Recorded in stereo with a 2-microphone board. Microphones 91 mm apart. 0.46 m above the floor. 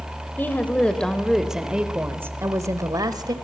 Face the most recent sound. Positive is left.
turn(degrees=-50)  # may be behind; listen again after turning